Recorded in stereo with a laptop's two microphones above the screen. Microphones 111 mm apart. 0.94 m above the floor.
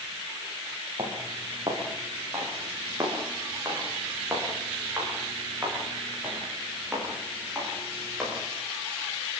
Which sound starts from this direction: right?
Footsteps, at 1.0 s.